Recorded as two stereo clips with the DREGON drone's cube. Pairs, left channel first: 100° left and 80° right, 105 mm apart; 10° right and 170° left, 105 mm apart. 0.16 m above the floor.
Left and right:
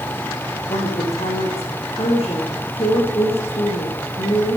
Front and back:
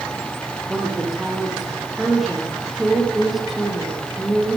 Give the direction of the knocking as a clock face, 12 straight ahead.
No knocking in this recording.